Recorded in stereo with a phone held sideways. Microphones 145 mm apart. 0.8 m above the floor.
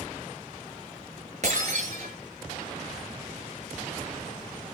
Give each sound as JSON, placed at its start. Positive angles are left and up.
{"t": 1.4, "sound": "breaking glass", "side_deg": -55, "distance_m": 8.5}